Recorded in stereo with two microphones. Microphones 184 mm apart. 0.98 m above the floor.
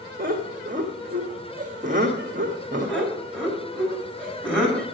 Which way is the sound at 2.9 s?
5° left (ahead or behind).